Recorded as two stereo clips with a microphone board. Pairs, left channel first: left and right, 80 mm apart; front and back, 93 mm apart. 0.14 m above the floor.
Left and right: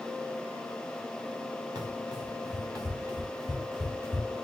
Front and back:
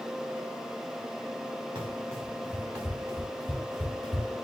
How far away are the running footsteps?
About 4 m.